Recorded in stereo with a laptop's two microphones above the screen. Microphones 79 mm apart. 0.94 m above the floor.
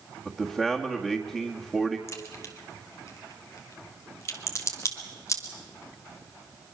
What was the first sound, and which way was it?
A man speaking, 10° right (ahead or behind).